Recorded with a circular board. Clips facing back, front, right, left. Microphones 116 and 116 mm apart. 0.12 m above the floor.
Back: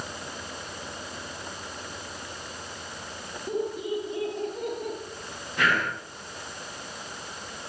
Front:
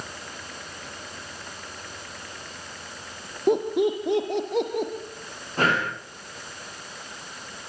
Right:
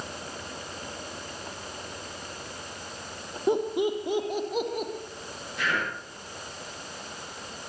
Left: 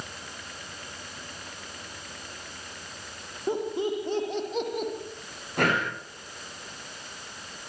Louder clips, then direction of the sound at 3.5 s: Front 8 dB, right 3 dB; 20° right.